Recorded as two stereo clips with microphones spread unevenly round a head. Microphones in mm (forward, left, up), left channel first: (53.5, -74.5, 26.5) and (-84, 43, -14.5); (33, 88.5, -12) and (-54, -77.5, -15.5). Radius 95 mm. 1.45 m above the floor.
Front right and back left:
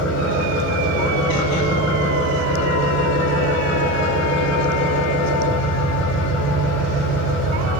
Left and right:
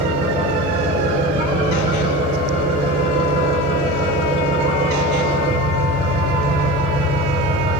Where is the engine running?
55° right, 4 m.